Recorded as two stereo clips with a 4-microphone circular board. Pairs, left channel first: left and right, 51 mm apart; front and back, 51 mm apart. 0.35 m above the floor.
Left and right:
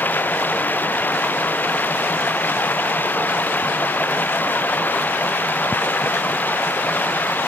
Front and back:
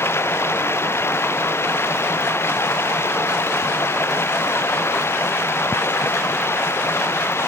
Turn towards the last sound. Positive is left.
turn(degrees=35)